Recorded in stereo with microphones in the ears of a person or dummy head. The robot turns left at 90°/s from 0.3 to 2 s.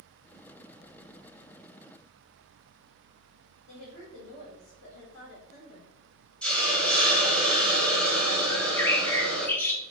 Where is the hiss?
5° left (ahead or behind), 1.4 m.